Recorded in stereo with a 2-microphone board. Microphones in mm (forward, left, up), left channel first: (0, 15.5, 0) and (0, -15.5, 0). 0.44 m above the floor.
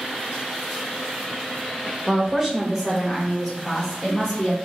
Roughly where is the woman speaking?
Right.